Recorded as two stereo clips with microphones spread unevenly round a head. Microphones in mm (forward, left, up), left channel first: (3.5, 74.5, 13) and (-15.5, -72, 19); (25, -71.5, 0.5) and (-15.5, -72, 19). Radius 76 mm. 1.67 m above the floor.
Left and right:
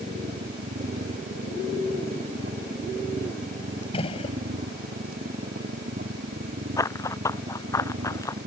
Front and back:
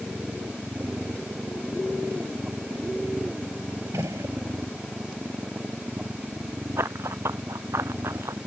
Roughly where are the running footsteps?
Behind left.